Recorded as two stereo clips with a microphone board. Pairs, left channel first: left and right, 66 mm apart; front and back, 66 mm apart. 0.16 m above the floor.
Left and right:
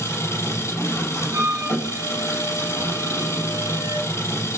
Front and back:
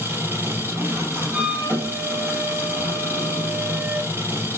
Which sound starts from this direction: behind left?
An engine running, at 0.0 s.